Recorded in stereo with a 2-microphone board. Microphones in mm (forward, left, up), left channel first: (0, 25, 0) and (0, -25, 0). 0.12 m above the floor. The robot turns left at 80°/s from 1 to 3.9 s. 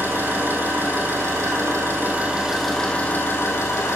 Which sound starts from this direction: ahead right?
An engine running, at 0.0 s.